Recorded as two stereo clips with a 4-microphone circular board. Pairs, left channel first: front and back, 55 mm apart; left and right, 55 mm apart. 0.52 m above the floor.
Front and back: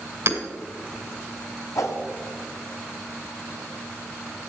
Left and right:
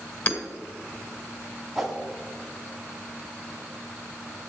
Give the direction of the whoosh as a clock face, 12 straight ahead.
12 o'clock.